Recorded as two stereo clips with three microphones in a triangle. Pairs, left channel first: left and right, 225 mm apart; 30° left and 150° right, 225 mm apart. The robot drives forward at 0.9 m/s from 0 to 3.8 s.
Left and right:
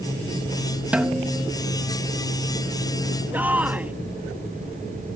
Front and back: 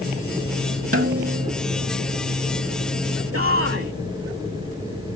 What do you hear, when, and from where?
0.9 s a snare drum: 175° right
3.3 s a shout: 175° right